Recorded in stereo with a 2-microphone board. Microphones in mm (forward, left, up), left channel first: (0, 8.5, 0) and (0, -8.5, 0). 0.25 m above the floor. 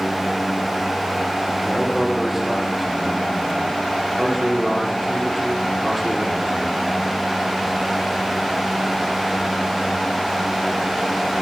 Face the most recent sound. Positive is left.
turn(degrees=-10)  # may be behind; listen again after turning